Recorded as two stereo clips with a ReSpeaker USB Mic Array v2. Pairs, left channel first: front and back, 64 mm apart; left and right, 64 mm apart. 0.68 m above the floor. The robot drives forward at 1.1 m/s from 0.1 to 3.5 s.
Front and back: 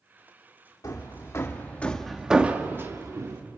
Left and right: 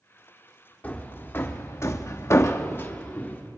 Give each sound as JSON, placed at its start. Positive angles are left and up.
{"t": 0.8, "sound": "hammering", "azimuth_deg": 25, "distance_m": 1.8}